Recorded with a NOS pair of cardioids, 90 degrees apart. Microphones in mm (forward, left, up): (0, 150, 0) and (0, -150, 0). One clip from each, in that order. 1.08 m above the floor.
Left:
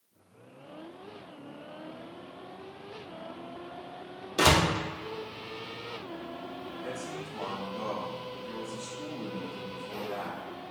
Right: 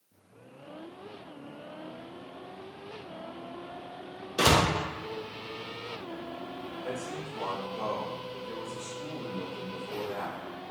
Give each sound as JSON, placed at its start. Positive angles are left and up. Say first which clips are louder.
{"t": 4.4, "sound": "a door slam", "louder": "even", "azimuth_deg": 10, "distance_m": 0.5}
{"t": 6.8, "sound": "a man speaking", "louder": "right 2 dB", "azimuth_deg": 40, "distance_m": 1.8}